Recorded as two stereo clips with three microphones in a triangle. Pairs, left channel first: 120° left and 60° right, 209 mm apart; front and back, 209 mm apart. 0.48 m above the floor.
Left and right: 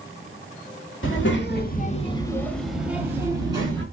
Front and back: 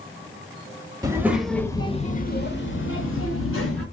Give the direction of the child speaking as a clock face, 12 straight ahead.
8 o'clock.